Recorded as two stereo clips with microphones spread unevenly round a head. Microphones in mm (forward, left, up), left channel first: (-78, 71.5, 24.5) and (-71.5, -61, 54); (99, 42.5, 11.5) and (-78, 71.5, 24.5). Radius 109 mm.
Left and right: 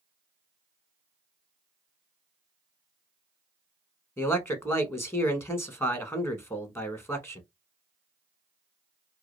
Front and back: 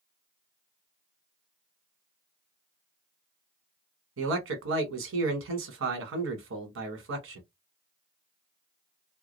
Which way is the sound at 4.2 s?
165° left.